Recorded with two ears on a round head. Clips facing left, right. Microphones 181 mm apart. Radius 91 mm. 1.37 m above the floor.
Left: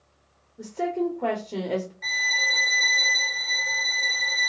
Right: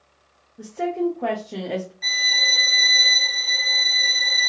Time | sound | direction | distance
0.6 | a woman speaking | 5° right (ahead or behind) | 0.8 m
2.0 | a violin | 45° right (ahead or behind) | 2 m